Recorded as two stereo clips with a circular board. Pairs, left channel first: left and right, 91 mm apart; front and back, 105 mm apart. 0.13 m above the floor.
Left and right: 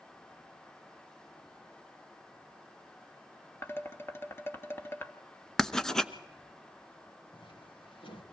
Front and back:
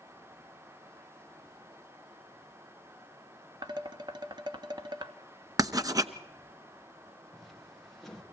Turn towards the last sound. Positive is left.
turn(degrees=90)